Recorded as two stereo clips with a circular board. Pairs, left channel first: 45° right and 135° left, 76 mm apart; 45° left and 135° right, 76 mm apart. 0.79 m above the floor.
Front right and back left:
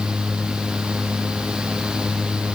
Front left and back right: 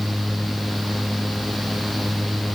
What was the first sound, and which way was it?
Only background noise.